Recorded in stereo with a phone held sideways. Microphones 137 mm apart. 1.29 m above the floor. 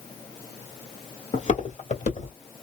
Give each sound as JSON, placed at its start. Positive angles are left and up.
{"t": 1.3, "sound": "footsteps", "side_deg": 45, "distance_m": 1.9}